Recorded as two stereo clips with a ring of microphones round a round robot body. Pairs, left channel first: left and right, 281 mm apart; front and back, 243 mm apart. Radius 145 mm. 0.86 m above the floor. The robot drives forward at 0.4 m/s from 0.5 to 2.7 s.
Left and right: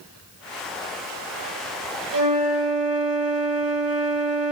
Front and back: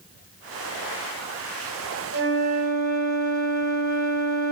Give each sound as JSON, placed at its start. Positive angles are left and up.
{"t": 2.1, "sound": "a flute", "azimuth_deg": -130, "distance_m": 4.5}